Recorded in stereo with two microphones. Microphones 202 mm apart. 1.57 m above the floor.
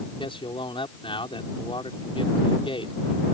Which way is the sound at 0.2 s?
25° left (ahead or behind).